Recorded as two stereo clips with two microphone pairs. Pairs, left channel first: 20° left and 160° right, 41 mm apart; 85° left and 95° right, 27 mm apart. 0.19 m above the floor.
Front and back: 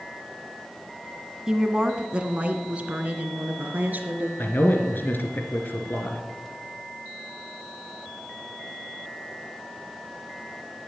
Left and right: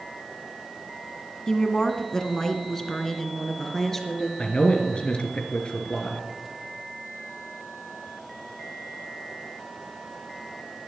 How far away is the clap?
I don't hear a clap.